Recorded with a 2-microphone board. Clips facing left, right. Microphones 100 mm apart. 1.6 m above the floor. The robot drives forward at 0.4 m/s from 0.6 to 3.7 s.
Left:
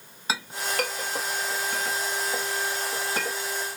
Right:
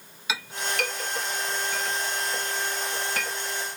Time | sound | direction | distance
0.3 | a clink | 35° left (ahead or behind) | 1.0 m